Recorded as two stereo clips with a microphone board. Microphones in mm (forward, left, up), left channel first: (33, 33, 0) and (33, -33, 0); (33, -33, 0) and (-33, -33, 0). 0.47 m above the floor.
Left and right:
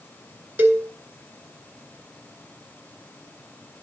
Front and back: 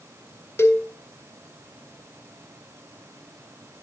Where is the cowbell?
40° right, 1.8 m.